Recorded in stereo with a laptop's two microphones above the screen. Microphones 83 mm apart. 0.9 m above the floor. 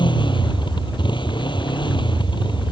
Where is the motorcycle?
75° left (ahead or behind).